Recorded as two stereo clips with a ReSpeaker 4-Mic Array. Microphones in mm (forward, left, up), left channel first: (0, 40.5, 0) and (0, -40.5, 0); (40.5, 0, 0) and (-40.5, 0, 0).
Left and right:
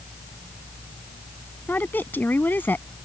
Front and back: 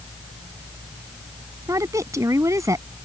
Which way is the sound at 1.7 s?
150° left.